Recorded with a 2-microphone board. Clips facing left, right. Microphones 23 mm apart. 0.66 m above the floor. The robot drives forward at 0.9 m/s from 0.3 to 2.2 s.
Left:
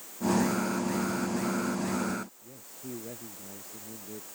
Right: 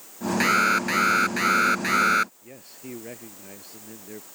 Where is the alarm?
65° right (ahead or behind); by 2.3 s 75° right (ahead or behind).